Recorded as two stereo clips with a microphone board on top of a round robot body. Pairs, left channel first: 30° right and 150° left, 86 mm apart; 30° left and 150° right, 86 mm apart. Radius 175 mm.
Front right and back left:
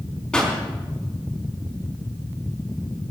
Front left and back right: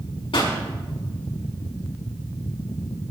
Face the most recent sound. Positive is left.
turn(degrees=50)